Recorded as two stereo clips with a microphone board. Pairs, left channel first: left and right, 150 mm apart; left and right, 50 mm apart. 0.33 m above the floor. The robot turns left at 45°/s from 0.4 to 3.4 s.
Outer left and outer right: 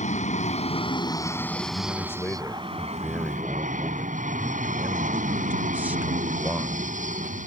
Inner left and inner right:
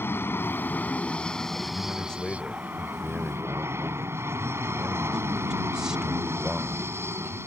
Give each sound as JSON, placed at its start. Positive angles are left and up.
{"t": 0.0, "sound": "an aircraft", "azimuth_deg": 60}
{"t": 1.6, "sound": "a man speaking", "side_deg": 25}